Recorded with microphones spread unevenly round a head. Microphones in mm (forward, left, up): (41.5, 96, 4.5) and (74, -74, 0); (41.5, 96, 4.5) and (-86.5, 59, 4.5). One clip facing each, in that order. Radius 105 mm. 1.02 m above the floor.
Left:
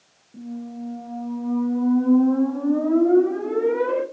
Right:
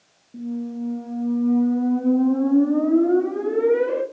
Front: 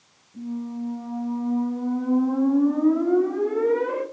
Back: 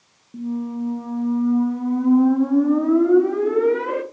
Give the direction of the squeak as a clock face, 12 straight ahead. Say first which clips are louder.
Right 5 dB, back 5 dB; 5 o'clock.